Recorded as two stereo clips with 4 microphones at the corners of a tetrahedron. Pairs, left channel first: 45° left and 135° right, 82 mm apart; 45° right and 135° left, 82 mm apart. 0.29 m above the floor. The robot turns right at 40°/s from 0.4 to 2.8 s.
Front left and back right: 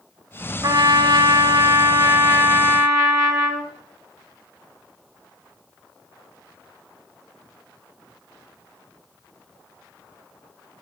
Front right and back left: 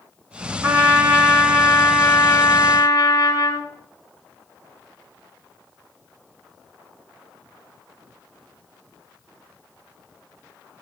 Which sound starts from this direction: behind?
A trumpet, at 0.6 s.